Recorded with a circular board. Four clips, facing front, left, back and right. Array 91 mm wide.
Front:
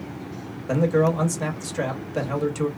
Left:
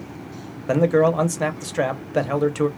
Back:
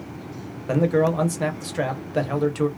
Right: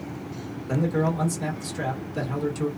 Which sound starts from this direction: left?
A man speaking, at 0.7 s.